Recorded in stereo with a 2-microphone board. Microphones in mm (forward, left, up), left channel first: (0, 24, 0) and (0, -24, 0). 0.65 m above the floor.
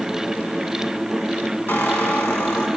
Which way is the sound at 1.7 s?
50° left (ahead or behind).